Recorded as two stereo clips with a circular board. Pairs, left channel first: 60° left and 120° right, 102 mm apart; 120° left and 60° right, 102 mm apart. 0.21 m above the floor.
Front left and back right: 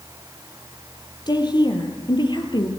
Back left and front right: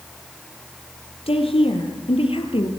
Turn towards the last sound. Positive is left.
turn(degrees=100)